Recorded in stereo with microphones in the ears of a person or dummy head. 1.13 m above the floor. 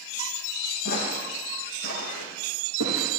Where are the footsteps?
55° left (ahead or behind), 4 m; by 3.1 s 75° left (ahead or behind), 4.5 m.